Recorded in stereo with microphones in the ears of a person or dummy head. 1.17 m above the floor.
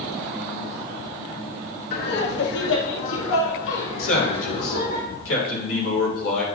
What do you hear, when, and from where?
1.9 s laughter: 60° left (ahead or behind), 1.3 m; by 5.0 s 65° left (ahead or behind), 2 m
4.0 s a man speaking: 85° left, 3.5 m